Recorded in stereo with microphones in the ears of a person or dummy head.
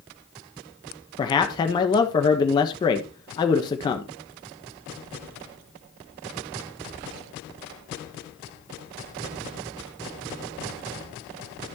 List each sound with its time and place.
1.2 s a man speaking: 20° left (ahead or behind), 1.2 m